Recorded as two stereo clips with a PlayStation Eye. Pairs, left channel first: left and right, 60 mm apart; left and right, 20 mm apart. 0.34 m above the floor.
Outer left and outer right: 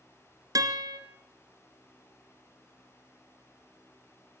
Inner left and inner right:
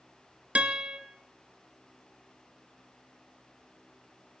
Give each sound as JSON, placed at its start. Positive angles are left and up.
{"t": 0.6, "sound": "a guitar", "side_deg": -80, "distance_m": 2.0}